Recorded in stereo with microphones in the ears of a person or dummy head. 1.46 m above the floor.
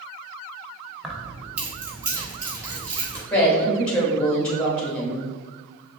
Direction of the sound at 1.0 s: Centre (ahead or behind).